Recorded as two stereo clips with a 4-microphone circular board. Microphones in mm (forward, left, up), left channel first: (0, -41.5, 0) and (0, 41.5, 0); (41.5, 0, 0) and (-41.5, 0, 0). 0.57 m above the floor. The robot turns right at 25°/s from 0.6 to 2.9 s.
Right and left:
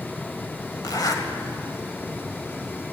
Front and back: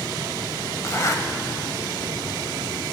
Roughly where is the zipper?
Ahead right.